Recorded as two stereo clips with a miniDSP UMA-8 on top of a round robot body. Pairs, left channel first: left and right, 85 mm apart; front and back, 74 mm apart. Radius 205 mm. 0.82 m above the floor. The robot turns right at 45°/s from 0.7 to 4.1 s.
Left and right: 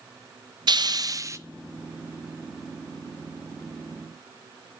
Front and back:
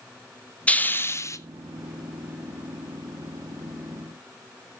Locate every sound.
0.7 s a hiss: 70° right, 0.8 m; by 1.4 s 40° right, 0.8 m